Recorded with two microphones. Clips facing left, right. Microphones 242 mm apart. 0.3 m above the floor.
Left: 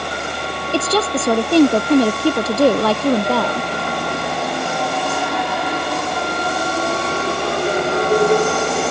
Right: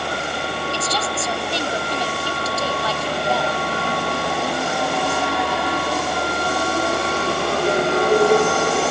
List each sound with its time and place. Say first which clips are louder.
0.7 s a woman speaking: left 8 dB; 60° left (ahead or behind)